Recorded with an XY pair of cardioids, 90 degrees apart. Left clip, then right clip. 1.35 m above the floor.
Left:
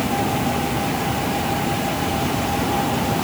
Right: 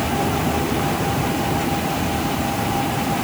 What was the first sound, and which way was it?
Only background noise.